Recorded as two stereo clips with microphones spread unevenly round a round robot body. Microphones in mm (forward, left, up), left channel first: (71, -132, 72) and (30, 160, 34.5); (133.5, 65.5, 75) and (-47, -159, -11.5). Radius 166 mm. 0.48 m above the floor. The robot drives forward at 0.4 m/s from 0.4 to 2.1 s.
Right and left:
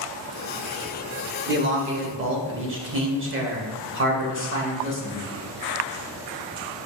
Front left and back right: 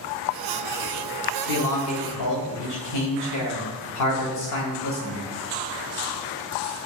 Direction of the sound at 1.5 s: 70° left.